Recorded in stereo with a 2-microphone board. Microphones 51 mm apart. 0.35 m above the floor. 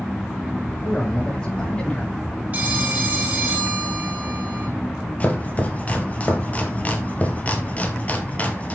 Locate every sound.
0.8 s a man speaking: 25° left (ahead or behind), 6.5 m
2.5 s a phone ringing: 30° right (ahead or behind), 2.5 m
5.2 s chopping: 30° left (ahead or behind), 2 m